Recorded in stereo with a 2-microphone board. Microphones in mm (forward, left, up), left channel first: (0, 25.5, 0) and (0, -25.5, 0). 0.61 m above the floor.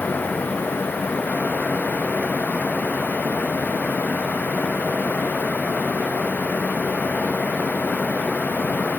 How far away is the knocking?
I don't hear knocking.